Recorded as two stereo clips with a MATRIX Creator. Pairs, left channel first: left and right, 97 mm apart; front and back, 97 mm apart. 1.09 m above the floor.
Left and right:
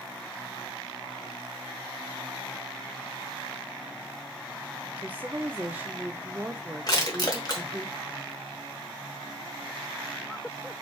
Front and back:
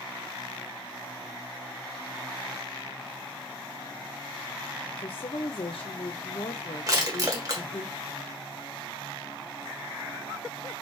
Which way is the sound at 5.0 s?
20° right.